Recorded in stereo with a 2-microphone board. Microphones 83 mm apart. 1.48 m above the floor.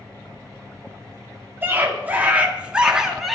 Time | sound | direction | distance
1.6 | a scream | 25° right (ahead or behind) | 3 m